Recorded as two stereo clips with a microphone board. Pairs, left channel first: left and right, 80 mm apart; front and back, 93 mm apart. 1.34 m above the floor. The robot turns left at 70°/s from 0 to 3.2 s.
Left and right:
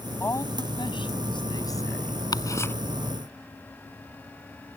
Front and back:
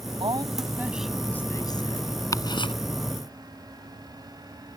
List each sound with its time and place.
0.2 s a woman speaking: 155° left; by 2.2 s 10° left
2.3 s ticking: 55° left; by 2.7 s 25° left